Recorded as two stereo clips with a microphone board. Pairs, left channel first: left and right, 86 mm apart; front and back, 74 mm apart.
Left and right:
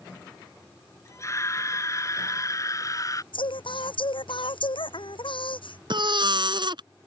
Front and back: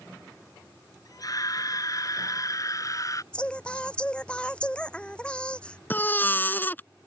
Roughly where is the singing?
Left.